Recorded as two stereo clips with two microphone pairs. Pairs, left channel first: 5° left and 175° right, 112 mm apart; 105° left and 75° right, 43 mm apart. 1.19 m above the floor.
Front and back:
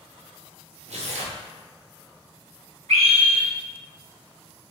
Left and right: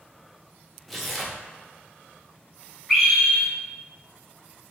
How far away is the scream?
About 1.4 m.